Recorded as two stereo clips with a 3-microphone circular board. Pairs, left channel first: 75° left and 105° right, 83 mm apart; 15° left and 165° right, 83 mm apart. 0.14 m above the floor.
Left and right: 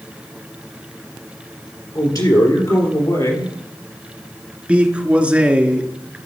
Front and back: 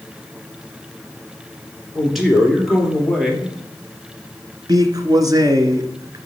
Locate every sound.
1.9 s a man speaking: 105° left, 3 m
4.7 s a man speaking: straight behind, 1.5 m